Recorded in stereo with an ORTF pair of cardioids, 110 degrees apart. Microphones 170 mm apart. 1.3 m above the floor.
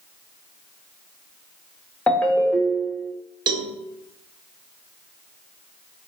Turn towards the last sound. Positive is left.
turn(degrees=-25)